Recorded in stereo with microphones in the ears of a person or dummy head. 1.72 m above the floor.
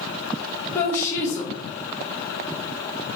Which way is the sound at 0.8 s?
20° left (ahead or behind).